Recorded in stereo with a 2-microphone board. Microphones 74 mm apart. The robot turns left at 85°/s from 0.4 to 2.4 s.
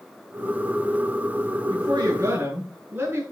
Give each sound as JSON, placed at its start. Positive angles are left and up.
{"t": 1.7, "sound": "a woman speaking", "azimuth_deg": -90, "distance_m": 9.0}